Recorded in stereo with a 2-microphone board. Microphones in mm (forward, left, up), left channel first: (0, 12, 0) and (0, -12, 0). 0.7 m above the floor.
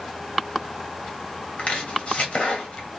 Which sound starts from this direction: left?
Chopping, at 1.6 s.